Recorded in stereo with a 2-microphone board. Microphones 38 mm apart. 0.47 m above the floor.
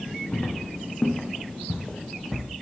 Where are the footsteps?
50° left (ahead or behind), 2.0 m; by 2.4 s centre (ahead or behind), 1.7 m.